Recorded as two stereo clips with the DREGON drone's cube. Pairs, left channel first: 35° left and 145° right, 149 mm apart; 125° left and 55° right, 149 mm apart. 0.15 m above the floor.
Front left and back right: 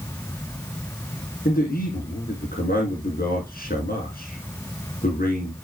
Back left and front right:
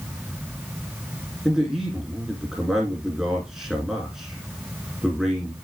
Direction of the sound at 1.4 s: 35° left.